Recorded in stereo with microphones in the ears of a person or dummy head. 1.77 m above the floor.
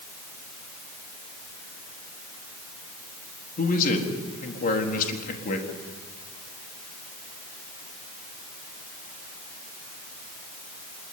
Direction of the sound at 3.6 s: 50° left (ahead or behind).